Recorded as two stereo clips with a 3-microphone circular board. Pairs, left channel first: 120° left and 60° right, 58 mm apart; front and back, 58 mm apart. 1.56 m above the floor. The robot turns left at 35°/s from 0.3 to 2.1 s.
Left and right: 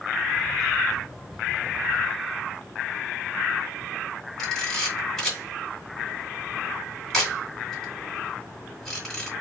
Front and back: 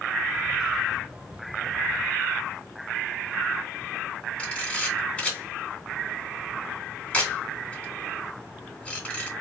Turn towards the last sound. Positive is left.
turn(degrees=40)